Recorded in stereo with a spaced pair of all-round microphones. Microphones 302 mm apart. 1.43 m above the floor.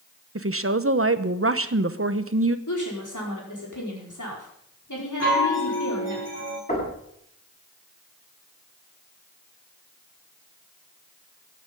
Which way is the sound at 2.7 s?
80° left.